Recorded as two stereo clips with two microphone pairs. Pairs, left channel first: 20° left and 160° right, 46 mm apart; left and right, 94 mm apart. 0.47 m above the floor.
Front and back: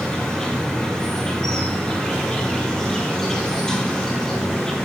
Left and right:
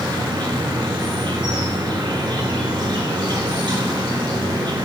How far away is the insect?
About 4 m.